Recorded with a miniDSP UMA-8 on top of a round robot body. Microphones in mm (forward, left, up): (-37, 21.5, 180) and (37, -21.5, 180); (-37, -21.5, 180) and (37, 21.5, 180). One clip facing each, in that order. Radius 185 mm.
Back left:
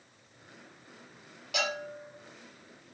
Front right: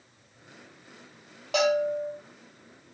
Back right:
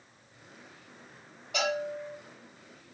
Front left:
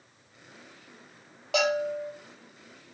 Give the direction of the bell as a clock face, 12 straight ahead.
11 o'clock.